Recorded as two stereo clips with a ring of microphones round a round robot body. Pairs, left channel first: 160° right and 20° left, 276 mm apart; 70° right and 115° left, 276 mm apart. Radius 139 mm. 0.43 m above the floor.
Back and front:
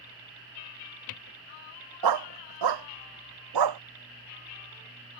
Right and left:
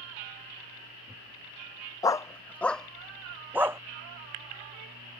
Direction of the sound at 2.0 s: 10° left.